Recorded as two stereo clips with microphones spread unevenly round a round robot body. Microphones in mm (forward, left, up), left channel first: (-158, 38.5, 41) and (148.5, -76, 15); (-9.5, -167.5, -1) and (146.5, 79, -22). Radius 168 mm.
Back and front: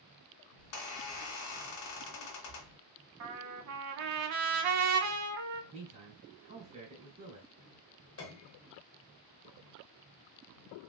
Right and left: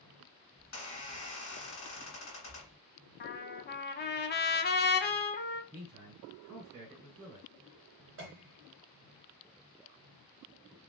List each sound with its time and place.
0.6 s a squeak: straight behind, 1.7 m
3.2 s a trumpet: 65° right, 0.6 m
5.7 s a man speaking: 35° left, 1.2 m
8.2 s a piano: 110° left, 0.8 m